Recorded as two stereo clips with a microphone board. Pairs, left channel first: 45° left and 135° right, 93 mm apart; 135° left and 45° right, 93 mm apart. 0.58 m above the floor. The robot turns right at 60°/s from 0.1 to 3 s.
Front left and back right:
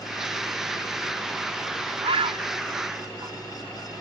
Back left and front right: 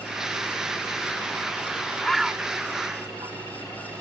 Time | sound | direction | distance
2.0 | a bird | 145° right | 0.6 m